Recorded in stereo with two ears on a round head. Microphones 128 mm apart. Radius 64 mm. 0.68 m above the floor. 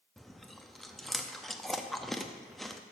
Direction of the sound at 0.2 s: Centre (ahead or behind).